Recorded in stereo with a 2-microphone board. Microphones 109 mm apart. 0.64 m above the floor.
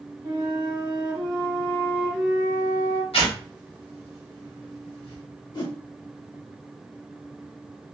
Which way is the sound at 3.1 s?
70° left (ahead or behind).